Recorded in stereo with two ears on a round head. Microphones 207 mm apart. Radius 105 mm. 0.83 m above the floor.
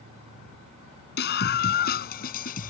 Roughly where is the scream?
Left.